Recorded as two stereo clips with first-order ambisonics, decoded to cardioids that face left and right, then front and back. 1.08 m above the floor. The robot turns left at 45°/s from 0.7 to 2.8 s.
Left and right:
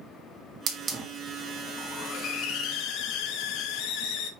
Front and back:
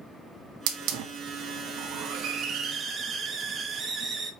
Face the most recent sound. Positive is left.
turn(degrees=115)